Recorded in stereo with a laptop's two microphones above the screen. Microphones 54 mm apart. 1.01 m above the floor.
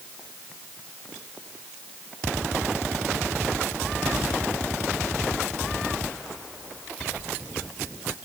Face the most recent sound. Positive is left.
No sound to turn to.